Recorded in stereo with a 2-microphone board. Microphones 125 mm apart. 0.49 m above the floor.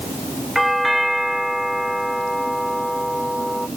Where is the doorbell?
Centre (ahead or behind).